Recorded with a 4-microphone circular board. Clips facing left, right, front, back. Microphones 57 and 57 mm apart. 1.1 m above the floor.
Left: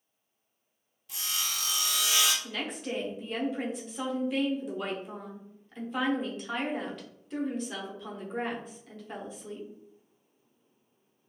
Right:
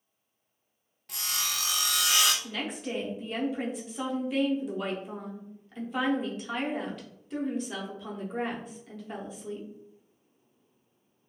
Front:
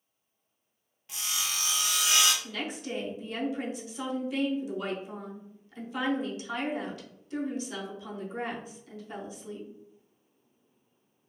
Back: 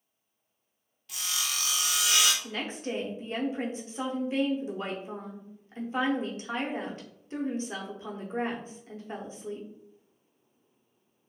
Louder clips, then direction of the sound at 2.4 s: Right 1 dB, back 1 dB; straight behind.